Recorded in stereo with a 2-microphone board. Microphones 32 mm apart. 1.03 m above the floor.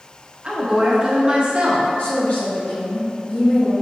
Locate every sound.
0.4 s a woman speaking: 35° right (ahead or behind), 0.8 m
2.0 s a woman speaking: 45° left (ahead or behind), 1.1 m